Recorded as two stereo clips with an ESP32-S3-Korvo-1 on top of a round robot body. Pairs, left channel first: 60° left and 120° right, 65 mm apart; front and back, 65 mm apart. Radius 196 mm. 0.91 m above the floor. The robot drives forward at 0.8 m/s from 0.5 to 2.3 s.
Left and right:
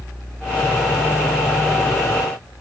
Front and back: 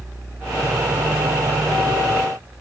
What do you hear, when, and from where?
Only background noise.